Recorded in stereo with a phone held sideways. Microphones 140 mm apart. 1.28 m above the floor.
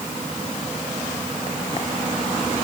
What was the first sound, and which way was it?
Only background noise.